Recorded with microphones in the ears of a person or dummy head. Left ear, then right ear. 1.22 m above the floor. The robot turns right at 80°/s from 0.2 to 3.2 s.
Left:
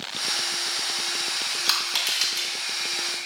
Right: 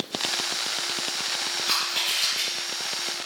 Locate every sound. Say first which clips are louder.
1.7 s crushing: left 1 dB; 60° left (ahead or behind), 1.9 m; by 2.5 s 50° left (ahead or behind), 1.9 m